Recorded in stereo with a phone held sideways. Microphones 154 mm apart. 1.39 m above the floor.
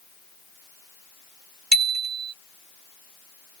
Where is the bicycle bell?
80° right.